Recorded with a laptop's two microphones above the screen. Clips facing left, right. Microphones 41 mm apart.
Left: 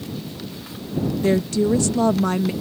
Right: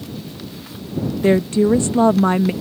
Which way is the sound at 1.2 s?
30° right (ahead or behind).